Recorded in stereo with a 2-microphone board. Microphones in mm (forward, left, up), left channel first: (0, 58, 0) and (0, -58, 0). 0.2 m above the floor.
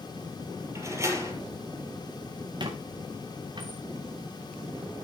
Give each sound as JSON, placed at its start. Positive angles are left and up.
{"t": 0.8, "sound": "a door slam", "side_deg": -25, "distance_m": 3.5}
{"t": 2.6, "sound": "a squeak", "side_deg": -40, "distance_m": 2.5}